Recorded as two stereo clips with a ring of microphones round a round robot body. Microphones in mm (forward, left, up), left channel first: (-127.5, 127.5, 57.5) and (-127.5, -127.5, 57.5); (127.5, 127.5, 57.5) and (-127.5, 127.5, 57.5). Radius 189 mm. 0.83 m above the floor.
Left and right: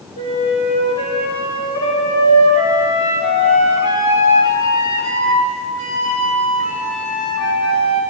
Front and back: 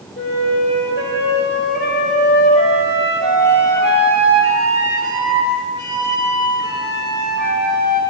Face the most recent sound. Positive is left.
turn(degrees=50)